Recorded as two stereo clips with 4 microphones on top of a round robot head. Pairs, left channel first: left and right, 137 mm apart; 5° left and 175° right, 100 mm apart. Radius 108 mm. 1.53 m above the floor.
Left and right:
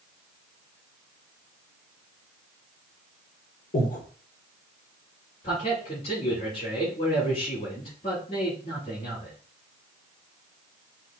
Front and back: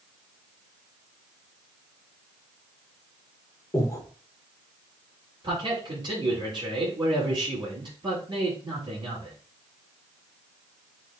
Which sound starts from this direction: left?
Breathing, at 3.7 s.